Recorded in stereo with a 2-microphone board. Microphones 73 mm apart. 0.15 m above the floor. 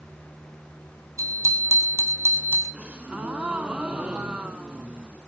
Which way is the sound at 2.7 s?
15° right (ahead or behind).